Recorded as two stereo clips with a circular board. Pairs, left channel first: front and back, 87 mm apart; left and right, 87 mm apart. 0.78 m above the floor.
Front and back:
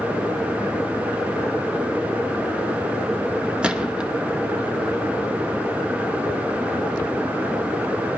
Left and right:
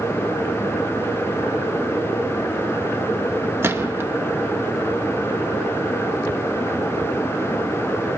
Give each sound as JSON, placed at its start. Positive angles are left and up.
{"t": 3.6, "sound": "a gunshot", "azimuth_deg": -115, "distance_m": 0.6}